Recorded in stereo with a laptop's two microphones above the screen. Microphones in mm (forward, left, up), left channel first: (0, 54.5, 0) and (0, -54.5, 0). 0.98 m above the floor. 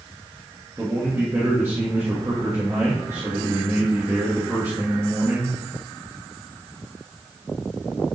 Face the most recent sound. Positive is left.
turn(degrees=-30)  # may be behind; listen again after turning